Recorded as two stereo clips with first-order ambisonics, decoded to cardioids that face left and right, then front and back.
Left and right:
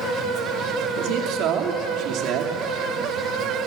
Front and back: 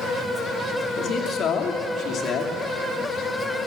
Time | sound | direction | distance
1.0 | a man speaking | 55° right | 2.5 m